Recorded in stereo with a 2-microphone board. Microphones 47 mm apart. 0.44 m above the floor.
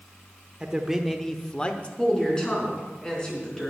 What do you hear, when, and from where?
0.6 s a man speaking: 20° right (ahead or behind), 0.9 m; by 1.9 s 30° left (ahead or behind), 1.0 m
2.0 s a woman speaking: 20° left (ahead or behind), 4 m